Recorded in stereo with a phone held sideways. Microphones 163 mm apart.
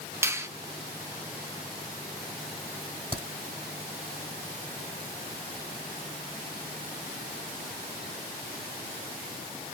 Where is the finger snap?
15° right (ahead or behind), 0.8 m.